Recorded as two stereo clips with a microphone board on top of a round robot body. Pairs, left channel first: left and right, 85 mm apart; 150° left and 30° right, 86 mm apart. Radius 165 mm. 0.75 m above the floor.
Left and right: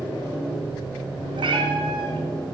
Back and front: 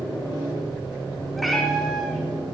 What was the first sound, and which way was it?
A cat meowing, 120° right.